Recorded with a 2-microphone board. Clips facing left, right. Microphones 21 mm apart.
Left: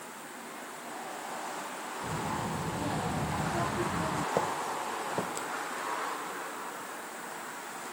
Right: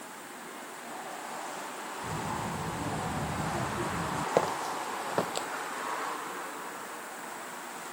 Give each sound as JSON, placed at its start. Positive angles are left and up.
{"t": 2.0, "sound": "a child speaking", "side_deg": 35}
{"t": 4.4, "sound": "footsteps", "side_deg": -65}